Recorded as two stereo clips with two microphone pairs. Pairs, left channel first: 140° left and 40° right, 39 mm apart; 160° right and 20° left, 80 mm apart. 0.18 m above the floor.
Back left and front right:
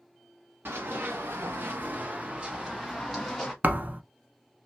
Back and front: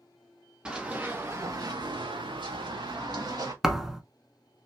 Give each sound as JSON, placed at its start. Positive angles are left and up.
{"t": 0.7, "sound": "running footsteps", "azimuth_deg": -55, "distance_m": 1.2}
{"t": 3.6, "sound": "a thud", "azimuth_deg": -60, "distance_m": 0.7}